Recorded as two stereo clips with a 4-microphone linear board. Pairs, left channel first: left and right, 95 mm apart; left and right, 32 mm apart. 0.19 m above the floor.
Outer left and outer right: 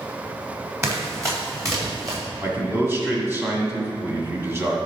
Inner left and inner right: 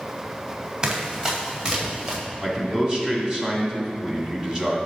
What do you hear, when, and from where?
0.8 s running footsteps: 30° right (ahead or behind), 3.5 m; by 2.2 s 35° right (ahead or behind), 4 m
2.4 s a man speaking: 25° right (ahead or behind), 1.6 m